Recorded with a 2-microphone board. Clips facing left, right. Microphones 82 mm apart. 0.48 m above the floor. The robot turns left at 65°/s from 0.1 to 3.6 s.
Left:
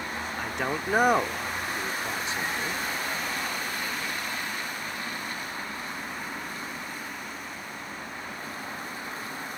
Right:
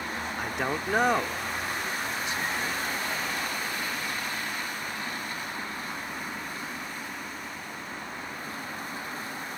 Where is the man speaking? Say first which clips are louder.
Even; 10° right (ahead or behind); by 2.8 s 20° left (ahead or behind).